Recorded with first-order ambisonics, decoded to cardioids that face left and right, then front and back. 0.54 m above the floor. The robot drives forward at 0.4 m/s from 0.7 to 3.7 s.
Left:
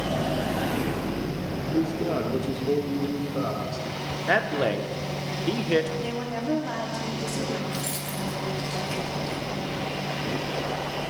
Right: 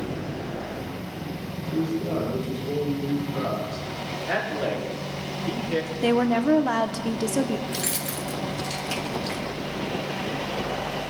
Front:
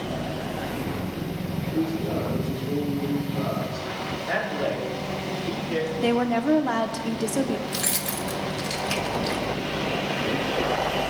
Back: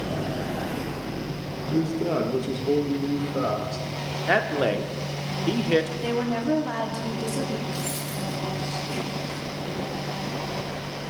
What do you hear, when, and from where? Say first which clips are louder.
1.7 s a man speaking: even, back 2 dB; 140° left, 1.0 m; by 3.9 s 165° left, 1.6 m
4.3 s a man speaking: left 3 dB, back 5 dB; 145° left, 0.9 m
6.0 s a woman speaking: right 8 dB, front 3 dB; 65° right, 0.8 m
7.7 s keys jangling: right 2 dB, front 3 dB; 25° right, 0.9 m